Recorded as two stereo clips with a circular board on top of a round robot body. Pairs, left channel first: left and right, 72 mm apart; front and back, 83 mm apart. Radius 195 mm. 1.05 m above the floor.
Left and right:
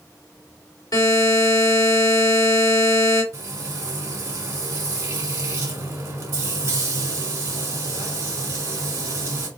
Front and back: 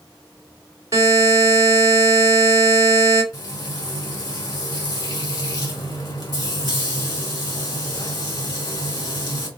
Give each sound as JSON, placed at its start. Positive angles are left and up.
{"t": 0.9, "sound": "a buzzer", "azimuth_deg": 125, "distance_m": 2.5}
{"t": 3.3, "sound": "frying", "azimuth_deg": -45, "distance_m": 1.3}